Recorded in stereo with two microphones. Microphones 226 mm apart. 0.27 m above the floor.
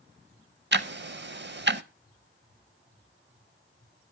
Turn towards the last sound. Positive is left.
turn(degrees=-55)  # may be behind; listen again after turning